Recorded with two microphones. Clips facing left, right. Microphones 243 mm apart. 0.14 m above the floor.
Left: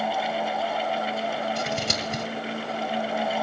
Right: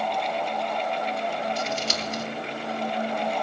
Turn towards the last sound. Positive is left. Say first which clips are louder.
# left 1 dB
turn(degrees=55)  # may be behind; listen again after turning